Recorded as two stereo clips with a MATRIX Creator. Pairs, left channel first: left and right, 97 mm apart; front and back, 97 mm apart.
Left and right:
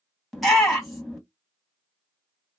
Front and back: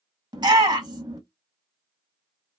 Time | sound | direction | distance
0.3 | a shout | straight behind | 1.9 m